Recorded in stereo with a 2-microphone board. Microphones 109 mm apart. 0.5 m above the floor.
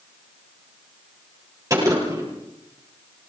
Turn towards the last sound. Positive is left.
turn(degrees=-30)  # may be behind; listen again after turning